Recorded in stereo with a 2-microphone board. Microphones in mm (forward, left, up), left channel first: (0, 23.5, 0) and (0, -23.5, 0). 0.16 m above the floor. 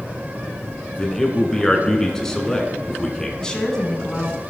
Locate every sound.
1.0 s a man speaking: 10° left (ahead or behind), 1.5 m
3.4 s a woman speaking: 15° left (ahead or behind), 1.3 m